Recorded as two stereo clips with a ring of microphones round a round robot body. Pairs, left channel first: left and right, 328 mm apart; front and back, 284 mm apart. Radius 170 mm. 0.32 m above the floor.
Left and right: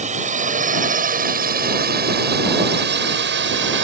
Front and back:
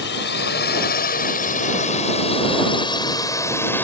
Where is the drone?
30° right; by 3.8 s 80° right.